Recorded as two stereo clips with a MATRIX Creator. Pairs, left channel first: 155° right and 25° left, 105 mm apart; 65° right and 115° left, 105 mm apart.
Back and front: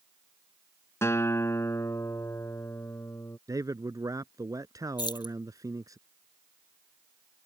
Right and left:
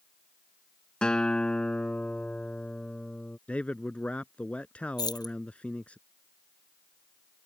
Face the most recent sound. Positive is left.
turn(degrees=-115)